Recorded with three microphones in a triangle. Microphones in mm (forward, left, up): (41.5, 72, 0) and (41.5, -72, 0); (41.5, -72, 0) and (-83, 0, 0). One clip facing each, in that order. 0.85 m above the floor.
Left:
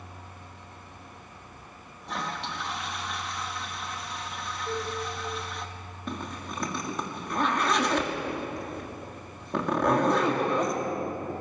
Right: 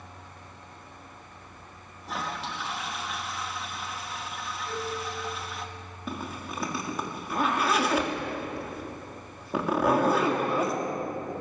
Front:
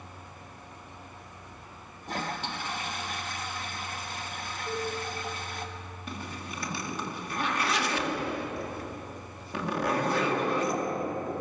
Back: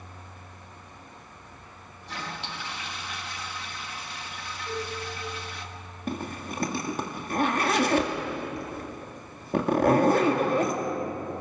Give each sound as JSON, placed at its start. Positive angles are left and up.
{"t": 2.0, "sound": "a toilet flushing", "azimuth_deg": 0, "distance_m": 1.4}
{"t": 4.7, "sound": "a cowbell", "azimuth_deg": 45, "distance_m": 10.0}
{"t": 6.1, "sound": "a zipper", "azimuth_deg": -175, "distance_m": 2.0}